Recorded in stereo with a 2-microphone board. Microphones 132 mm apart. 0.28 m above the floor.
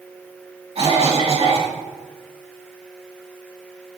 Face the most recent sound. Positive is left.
turn(degrees=-50)  # may be behind; listen again after turning